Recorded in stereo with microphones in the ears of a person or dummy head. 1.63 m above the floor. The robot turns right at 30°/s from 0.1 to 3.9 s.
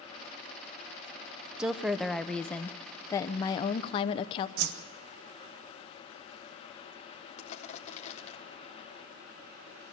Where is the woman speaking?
15° right, 0.6 m; by 4.5 s 55° left, 0.6 m.